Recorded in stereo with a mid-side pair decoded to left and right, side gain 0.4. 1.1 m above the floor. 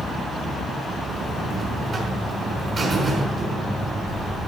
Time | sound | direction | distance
1.1 | a buzzer | 50° right | 5 m